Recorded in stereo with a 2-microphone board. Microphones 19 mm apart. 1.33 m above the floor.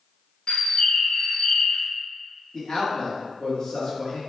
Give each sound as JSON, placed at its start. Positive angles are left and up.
{"t": 0.5, "sound": "a bird", "side_deg": 50, "distance_m": 0.6}
{"t": 2.5, "sound": "a man speaking", "side_deg": 50, "distance_m": 1.5}